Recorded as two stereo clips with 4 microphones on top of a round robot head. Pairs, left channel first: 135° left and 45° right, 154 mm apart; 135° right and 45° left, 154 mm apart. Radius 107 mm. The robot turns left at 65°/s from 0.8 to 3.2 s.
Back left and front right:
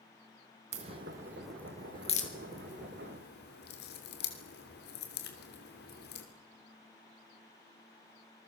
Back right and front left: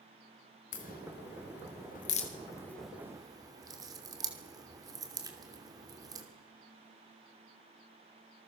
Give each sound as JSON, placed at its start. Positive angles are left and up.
{"t": 0.7, "sound": "a crack", "azimuth_deg": -90, "distance_m": 3.0}